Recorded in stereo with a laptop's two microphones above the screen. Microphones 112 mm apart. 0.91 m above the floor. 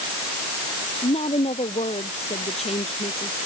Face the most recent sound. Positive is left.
turn(degrees=70)  # may be behind; listen again after turning